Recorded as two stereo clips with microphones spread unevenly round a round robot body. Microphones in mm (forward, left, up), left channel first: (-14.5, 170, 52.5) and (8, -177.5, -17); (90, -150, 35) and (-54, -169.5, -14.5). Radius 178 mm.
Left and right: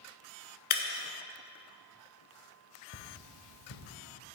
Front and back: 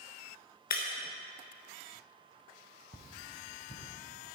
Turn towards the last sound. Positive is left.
turn(degrees=50)